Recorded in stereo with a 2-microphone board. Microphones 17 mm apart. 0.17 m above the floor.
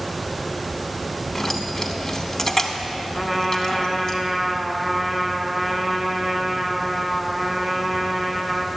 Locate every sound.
1.4 s keys jangling: 25° left (ahead or behind), 0.8 m
3.1 s a trumpet: 15° right (ahead or behind), 0.9 m